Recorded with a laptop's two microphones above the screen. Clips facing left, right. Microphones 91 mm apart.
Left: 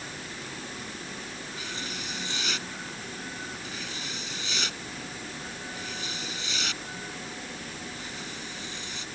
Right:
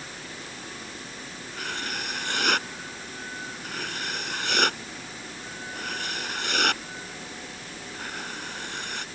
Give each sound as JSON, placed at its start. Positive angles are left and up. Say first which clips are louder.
{"t": 1.6, "sound": "writing", "louder": "right 7 dB", "side_deg": -60}